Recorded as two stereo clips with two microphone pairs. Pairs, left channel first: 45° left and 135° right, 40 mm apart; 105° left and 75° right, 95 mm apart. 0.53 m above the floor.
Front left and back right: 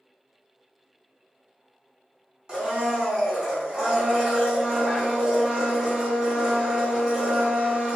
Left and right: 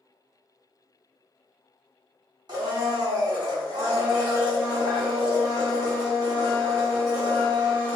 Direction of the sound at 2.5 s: 75° right.